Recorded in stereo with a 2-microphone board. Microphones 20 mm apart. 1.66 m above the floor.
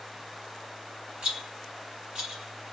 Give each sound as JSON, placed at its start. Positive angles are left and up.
{"t": 1.2, "sound": "a rattle", "side_deg": -55, "distance_m": 1.5}